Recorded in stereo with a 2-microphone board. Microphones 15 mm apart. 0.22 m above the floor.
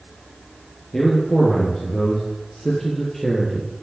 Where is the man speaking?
40° left (ahead or behind), 6 m; by 3.8 s 25° left (ahead or behind), 4.5 m.